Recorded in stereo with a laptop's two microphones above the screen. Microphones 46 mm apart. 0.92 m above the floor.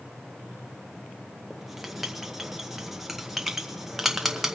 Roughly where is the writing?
Centre.